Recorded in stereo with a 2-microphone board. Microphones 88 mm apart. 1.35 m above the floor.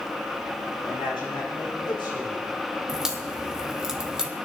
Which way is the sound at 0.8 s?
70° left (ahead or behind).